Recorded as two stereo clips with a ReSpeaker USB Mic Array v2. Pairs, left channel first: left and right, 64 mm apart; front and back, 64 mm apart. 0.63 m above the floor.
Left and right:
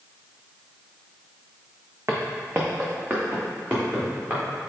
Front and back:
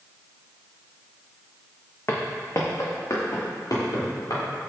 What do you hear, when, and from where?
2.1 s footsteps: 45° right, 1.4 m; by 4.4 s 25° right, 4 m